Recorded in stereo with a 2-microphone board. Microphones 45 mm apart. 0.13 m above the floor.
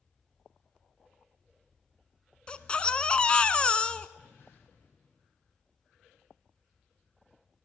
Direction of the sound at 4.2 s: 65° left (ahead or behind).